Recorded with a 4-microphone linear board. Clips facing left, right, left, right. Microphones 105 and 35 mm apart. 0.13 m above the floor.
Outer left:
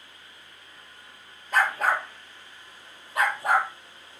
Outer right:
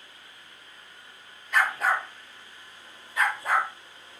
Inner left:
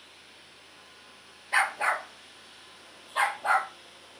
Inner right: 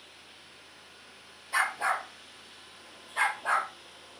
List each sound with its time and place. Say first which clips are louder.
1.5 s a dog barking: outer left 1 dB, inner left 2 dB; 45° left (ahead or behind), 0.8 m; by 3.7 s 75° left (ahead or behind), 1.8 m